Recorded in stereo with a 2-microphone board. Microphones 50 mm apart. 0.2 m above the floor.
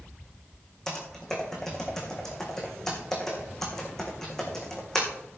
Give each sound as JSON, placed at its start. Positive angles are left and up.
{"t": 0.9, "sound": "typing on a keyboard", "side_deg": 10, "distance_m": 3.5}